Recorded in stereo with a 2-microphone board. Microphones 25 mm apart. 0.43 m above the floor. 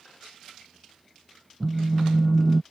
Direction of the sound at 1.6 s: 10° left (ahead or behind).